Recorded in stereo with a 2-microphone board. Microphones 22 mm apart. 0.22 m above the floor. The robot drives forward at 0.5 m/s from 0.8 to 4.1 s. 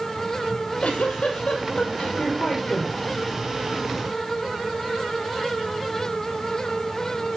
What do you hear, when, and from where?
0.5 s a giggle: 80° left, 3 m; by 3.0 s 60° left (ahead or behind), 3.5 m